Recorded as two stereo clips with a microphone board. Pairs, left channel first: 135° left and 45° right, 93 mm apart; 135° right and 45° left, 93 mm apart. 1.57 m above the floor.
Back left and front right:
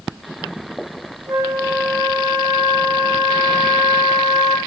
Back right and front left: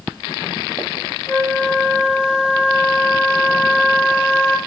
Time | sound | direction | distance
1.3 | a flute | 85° right | 2.5 m